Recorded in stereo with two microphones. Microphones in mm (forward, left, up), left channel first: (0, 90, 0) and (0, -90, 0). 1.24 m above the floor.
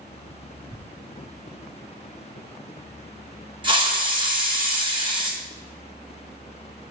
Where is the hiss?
30° right (ahead or behind), 1.5 m.